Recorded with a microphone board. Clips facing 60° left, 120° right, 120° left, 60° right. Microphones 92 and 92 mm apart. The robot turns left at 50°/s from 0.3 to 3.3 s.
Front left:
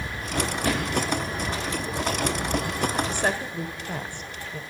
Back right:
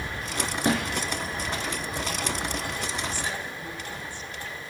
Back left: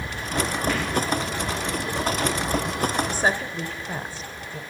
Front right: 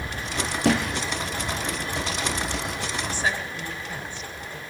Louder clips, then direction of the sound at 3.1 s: Front left 6 dB, back left 4 dB; 80° left.